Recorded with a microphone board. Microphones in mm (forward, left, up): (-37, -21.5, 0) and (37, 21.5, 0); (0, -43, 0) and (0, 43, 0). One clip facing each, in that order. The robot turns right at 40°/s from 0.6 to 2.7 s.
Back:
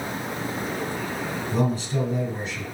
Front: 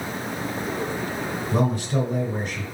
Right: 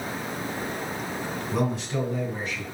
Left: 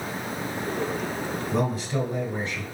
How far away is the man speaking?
About 2.5 m.